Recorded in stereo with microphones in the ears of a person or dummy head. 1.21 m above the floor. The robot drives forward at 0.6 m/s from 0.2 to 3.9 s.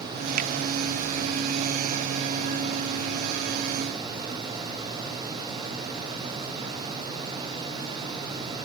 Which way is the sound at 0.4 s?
55° right (ahead or behind).